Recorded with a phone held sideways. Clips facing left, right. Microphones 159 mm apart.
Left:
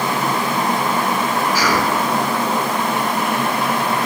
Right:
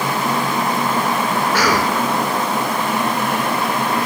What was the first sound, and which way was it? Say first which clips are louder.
A cough: right 2 dB; 70° right (ahead or behind).